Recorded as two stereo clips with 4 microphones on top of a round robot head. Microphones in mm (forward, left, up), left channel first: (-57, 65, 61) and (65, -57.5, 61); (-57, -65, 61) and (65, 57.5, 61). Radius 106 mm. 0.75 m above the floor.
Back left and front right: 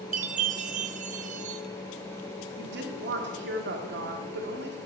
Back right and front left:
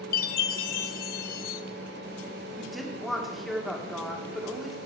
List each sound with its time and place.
0.1 s a chime: 95° right, 0.5 m
2.6 s a woman speaking: 45° right, 1.8 m